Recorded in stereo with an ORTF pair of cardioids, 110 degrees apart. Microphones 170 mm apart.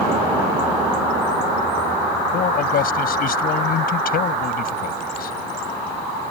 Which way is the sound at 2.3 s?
60° left.